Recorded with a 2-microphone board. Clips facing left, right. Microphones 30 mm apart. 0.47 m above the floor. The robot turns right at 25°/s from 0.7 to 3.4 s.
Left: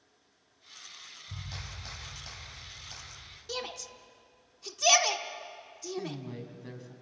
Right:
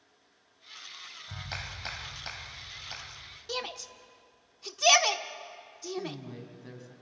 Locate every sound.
1.3 s a clap: 80° right, 1.7 m; by 3.4 s 25° right, 1.7 m
3.5 s a shout: 15° right (ahead or behind), 1.0 m
6.0 s a man speaking: 10° left (ahead or behind), 3.5 m